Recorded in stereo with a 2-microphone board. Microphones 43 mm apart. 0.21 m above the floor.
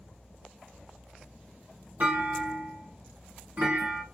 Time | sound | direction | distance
2.0 | a clunk | 55° right (ahead or behind) | 1.3 m